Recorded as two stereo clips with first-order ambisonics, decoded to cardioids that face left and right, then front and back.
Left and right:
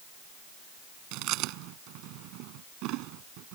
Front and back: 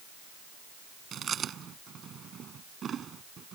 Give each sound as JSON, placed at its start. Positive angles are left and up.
{"t": 1.1, "sound": "chewing", "azimuth_deg": -120}